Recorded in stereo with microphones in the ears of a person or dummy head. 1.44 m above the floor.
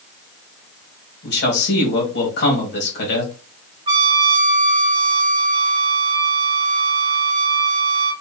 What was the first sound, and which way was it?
A man speaking, 45° left (ahead or behind).